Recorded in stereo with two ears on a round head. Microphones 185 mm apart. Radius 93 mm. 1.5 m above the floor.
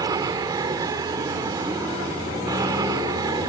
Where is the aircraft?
20° right (ahead or behind).